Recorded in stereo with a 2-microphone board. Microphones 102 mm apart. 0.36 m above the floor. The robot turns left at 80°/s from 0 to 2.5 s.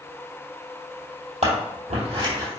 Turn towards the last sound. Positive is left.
turn(degrees=-25)  # may be behind; listen again after turning